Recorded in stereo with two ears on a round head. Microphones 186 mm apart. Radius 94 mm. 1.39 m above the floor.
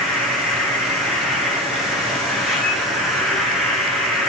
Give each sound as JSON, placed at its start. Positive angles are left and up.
{"t": 0.0, "sound": "an insect", "side_deg": 0, "distance_m": 1.8}